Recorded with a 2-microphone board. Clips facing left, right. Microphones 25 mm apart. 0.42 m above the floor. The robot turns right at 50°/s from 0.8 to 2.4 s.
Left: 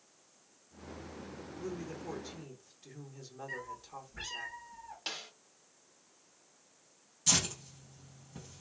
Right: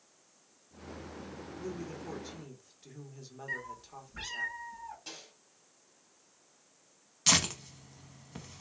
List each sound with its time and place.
1.6 s a woman speaking: 10° left (ahead or behind), 1.0 m; by 4.5 s 5° right (ahead or behind), 1.0 m
3.5 s a cat meowing: 70° right (ahead or behind), 2.5 m
5.1 s a snare drum: 60° left (ahead or behind), 0.7 m
7.3 s tearing paper: 75° right (ahead or behind), 0.6 m